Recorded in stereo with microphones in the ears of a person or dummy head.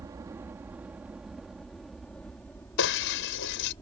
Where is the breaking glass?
70° left (ahead or behind).